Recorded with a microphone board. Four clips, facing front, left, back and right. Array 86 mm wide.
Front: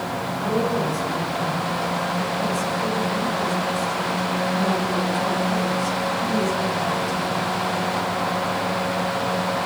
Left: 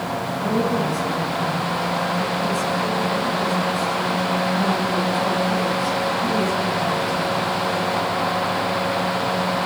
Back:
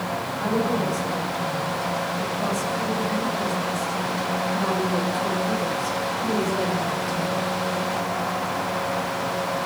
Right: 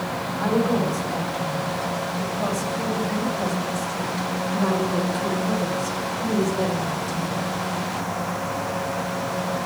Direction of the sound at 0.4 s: 115° right.